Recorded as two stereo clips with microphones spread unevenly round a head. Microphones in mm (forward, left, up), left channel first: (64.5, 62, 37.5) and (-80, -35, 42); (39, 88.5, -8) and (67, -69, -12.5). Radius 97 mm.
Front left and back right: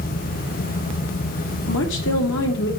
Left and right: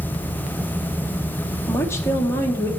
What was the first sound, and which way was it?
A woman speaking, 25° left.